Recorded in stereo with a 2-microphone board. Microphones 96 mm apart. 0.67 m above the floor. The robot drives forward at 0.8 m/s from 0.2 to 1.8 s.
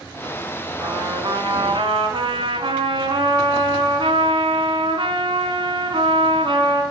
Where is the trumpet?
45° right (ahead or behind), 2.5 m; by 6.8 s 60° right (ahead or behind), 1.9 m.